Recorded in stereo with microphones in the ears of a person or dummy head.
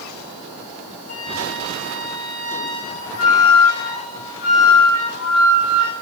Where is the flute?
85° left, 6 m.